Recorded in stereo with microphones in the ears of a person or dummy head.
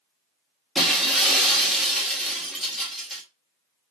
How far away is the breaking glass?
About 1.7 m.